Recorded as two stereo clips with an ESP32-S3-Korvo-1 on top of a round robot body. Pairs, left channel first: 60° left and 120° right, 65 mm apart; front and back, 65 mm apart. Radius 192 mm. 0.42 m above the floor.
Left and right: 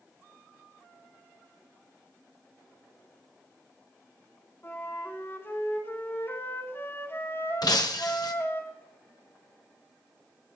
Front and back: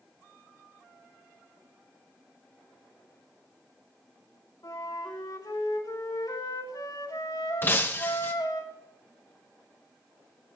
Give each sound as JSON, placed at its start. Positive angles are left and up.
{"t": 4.6, "sound": "a flute", "azimuth_deg": 5, "distance_m": 4.5}
{"t": 7.6, "sound": "breaking glass", "azimuth_deg": 60, "distance_m": 1.4}